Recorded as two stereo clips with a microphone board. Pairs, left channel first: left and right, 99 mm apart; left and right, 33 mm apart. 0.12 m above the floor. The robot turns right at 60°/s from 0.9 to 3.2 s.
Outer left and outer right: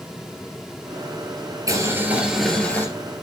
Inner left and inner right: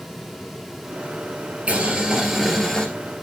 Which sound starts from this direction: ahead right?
Boiling, at 1.7 s.